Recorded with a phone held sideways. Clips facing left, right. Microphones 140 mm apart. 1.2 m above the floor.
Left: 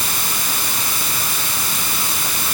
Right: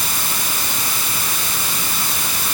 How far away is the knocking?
I don't hear knocking.